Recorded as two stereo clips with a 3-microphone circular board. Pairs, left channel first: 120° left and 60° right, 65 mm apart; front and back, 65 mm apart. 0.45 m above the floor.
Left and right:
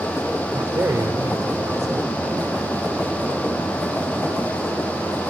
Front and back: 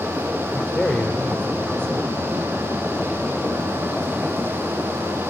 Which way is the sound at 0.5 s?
55° right.